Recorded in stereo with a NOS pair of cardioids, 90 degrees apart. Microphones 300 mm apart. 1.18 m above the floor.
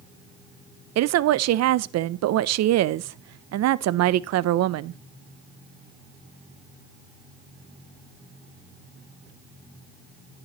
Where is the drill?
I don't hear a drill.